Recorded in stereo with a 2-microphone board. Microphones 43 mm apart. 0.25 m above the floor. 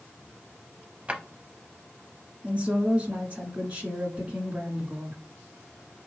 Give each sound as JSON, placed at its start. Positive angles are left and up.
{"t": 1.1, "sound": "a drawer", "side_deg": -25, "distance_m": 0.6}
{"t": 2.4, "sound": "a woman speaking", "side_deg": -35, "distance_m": 1.9}